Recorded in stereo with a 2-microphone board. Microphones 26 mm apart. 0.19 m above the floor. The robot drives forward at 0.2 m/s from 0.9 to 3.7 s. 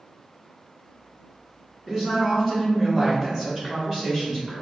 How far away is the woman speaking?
About 1.6 m.